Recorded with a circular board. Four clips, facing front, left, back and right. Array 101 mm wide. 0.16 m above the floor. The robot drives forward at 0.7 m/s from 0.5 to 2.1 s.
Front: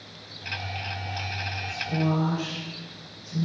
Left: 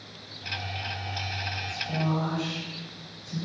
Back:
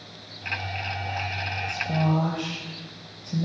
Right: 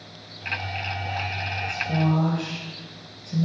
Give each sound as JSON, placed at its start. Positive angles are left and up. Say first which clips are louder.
{"t": 1.7, "sound": "a woman speaking", "louder": "right 5 dB, back 1 dB", "azimuth_deg": -145, "distance_m": 3.5}